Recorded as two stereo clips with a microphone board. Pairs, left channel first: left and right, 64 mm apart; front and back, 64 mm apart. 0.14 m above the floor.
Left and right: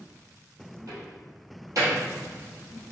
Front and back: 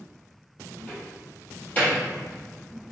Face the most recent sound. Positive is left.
turn(degrees=-60)